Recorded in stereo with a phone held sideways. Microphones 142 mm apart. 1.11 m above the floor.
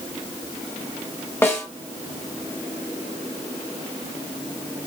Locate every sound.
1.4 s a snare drum: 15° left (ahead or behind), 0.9 m